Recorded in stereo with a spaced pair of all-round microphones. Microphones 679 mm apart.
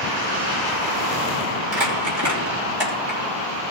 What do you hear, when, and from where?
1.7 s crumpling: 65° right (ahead or behind), 3 m